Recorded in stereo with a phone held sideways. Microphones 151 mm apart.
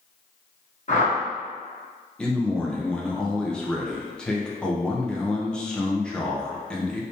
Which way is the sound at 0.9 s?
55° left (ahead or behind).